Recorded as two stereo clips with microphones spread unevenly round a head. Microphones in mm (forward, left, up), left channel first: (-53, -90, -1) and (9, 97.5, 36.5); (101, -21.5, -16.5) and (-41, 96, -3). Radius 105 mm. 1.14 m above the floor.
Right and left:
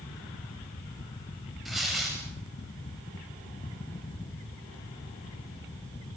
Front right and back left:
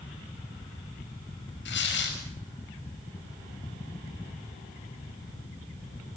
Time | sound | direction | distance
1.6 | tearing paper | 20° right | 7 m